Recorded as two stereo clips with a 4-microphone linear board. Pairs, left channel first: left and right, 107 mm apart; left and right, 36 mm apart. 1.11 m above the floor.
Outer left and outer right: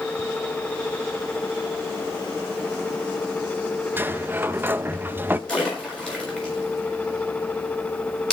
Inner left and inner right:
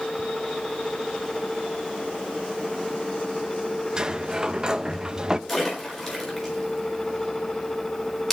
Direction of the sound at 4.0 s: 20° right (ahead or behind).